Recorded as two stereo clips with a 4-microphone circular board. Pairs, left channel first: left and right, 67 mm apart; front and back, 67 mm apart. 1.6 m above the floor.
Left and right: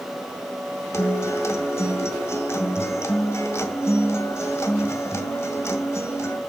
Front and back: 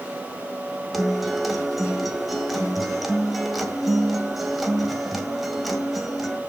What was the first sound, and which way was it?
A guitar, 90° left.